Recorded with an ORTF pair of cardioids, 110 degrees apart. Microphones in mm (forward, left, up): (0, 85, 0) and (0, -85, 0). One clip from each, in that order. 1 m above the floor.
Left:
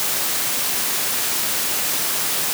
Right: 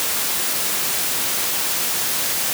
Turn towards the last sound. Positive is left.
No sound to turn to.